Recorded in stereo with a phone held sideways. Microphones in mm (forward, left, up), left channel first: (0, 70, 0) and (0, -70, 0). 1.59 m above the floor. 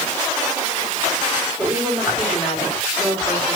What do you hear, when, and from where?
1.6 s a woman speaking: 5° right (ahead or behind), 5.5 m